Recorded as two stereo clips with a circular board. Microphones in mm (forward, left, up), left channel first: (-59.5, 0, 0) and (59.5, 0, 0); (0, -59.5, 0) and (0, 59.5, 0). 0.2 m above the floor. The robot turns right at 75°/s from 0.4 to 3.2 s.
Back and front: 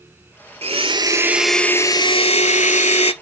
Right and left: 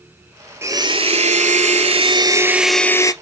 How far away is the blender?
About 0.8 m.